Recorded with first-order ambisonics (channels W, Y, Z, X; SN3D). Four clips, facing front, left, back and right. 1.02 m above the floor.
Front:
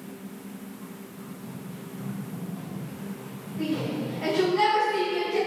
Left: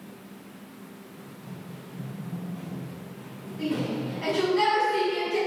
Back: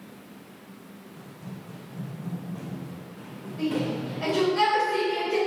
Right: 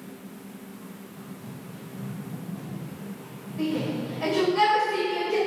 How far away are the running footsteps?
About 3 m.